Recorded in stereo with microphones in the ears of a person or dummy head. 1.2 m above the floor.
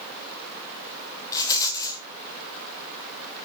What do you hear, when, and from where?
1.3 s a rattle: 25° left (ahead or behind), 2.0 m